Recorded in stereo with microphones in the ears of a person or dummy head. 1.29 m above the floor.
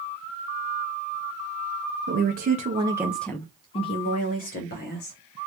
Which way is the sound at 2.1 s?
55° right (ahead or behind).